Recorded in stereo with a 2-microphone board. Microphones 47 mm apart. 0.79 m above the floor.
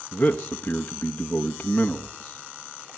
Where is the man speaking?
25° left (ahead or behind), 0.8 m.